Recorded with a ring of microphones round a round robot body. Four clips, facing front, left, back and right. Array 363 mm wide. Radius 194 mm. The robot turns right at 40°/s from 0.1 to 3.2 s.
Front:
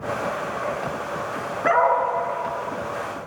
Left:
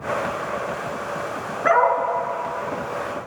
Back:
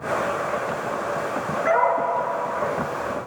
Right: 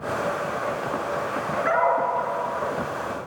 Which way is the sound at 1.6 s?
55° left.